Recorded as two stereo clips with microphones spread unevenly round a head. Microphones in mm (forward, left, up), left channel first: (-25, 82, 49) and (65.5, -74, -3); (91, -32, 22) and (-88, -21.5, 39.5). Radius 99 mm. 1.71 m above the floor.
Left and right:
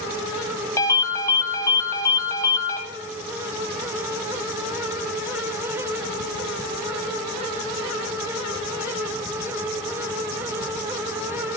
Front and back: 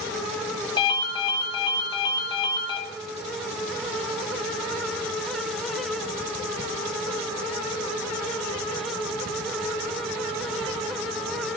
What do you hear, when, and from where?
0.8 s a ringtone: 65° left, 0.8 m